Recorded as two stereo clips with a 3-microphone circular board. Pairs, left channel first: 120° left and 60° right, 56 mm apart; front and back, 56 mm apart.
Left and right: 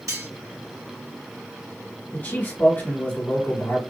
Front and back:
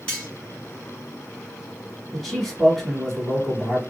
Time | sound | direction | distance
0.1 | cutlery clinking | 65° right | 2 m
2.1 | a man speaking | 85° left | 1.4 m